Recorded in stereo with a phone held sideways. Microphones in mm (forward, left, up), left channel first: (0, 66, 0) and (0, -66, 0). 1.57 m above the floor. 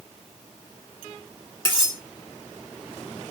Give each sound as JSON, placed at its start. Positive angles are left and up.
{"t": 1.6, "sound": "cutlery clinking", "side_deg": -35, "distance_m": 1.2}